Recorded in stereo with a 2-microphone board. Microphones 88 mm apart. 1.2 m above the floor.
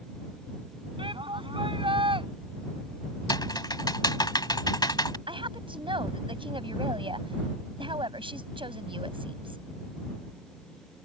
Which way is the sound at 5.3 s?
70° right (ahead or behind).